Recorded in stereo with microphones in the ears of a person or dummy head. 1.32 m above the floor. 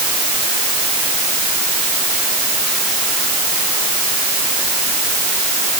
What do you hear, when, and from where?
Only background noise.